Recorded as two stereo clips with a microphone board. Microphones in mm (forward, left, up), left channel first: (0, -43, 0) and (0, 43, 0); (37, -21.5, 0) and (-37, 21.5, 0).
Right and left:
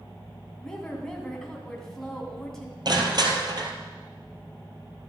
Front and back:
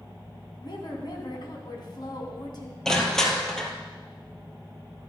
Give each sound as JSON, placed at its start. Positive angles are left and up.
{"t": 0.6, "sound": "a woman speaking", "azimuth_deg": -5, "distance_m": 2.5}
{"t": 2.9, "sound": "crushing", "azimuth_deg": 55, "distance_m": 1.8}